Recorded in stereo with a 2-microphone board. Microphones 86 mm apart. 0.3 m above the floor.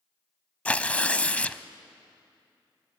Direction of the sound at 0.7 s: 15° left (ahead or behind).